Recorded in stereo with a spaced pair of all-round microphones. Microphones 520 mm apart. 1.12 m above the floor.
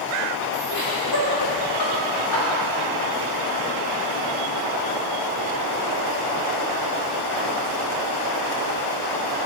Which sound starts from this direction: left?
Laughter, at 0.7 s.